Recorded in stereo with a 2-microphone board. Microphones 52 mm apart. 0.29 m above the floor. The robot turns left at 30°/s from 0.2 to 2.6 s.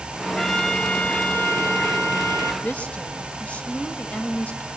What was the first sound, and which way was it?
A trumpet, 170° left.